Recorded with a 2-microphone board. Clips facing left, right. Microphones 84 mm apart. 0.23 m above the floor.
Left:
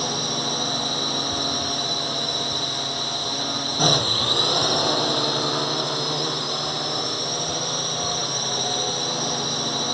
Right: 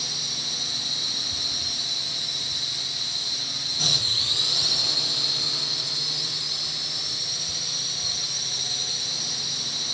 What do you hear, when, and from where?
0.0 s a drone: 60° left (ahead or behind)